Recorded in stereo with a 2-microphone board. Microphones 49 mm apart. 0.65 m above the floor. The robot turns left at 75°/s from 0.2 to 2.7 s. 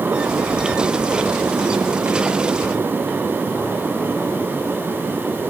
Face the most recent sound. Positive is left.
No sound to turn to.